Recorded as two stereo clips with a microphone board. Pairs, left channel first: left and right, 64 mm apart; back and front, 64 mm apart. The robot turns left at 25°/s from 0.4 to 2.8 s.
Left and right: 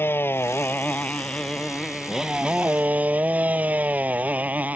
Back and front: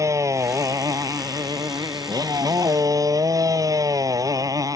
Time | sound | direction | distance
0.0 | a motorcycle | 35° left | ?